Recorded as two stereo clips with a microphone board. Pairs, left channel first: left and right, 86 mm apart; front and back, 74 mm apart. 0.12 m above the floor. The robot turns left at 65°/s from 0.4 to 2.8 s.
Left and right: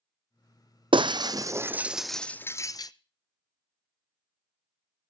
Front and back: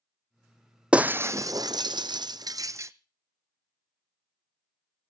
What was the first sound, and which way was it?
Breaking glass, 105° right.